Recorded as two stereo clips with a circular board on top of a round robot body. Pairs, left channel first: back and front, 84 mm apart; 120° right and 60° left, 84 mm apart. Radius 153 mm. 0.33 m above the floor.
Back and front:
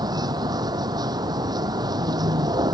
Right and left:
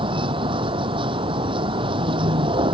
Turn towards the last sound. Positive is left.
turn(degrees=40)